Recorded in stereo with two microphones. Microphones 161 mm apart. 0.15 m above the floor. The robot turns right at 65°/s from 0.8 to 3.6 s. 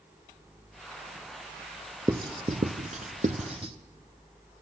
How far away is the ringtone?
I don't hear a ringtone.